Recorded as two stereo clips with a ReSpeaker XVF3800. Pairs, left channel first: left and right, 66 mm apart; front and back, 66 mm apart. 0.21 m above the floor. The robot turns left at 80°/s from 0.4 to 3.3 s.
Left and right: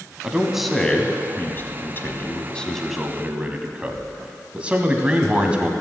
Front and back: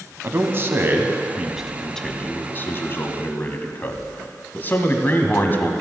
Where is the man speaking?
160° right, 1.2 m; by 5.7 s 30° right, 1.2 m.